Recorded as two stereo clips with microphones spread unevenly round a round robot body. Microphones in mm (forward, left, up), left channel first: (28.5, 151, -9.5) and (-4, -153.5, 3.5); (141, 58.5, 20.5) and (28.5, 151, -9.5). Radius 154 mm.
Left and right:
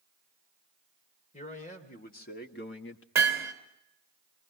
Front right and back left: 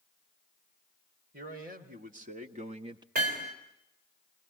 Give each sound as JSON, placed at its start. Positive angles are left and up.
{"t": 1.3, "sound": "a man speaking", "azimuth_deg": 150, "distance_m": 2.5}
{"t": 3.1, "sound": "hammering", "azimuth_deg": 180, "distance_m": 2.5}